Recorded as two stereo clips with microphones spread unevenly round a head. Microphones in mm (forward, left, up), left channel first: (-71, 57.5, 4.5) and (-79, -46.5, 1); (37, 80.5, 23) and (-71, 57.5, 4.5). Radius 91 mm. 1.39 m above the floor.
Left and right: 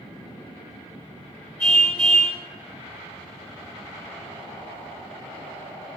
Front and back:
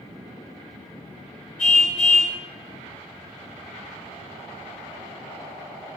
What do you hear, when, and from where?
1.6 s a car horn: 5° left, 5.5 m